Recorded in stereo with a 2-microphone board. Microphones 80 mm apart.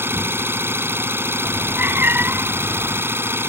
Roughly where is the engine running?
Right.